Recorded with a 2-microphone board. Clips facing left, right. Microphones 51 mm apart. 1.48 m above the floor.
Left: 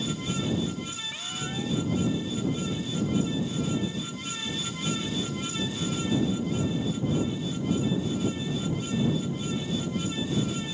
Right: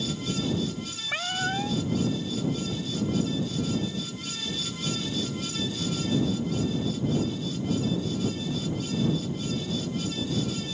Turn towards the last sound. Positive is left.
turn(degrees=-55)  # may be behind; listen again after turning